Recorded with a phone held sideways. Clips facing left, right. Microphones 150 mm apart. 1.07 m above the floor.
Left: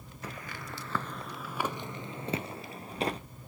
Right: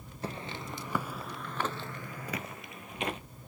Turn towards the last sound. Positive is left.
turn(degrees=35)  # may be behind; listen again after turning